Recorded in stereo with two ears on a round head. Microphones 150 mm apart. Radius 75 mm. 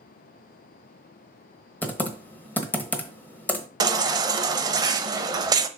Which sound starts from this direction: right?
A baby crying, at 3.8 s.